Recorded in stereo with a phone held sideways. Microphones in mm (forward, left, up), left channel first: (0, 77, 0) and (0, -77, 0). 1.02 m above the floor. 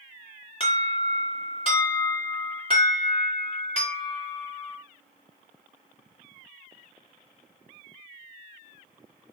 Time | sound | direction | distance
0.6 | an alarm | 35° left (ahead or behind) | 1.7 m